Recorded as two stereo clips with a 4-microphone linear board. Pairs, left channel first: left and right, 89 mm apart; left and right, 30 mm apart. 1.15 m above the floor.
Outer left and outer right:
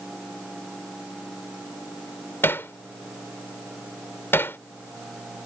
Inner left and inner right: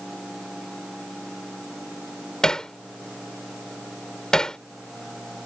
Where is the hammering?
25° left (ahead or behind).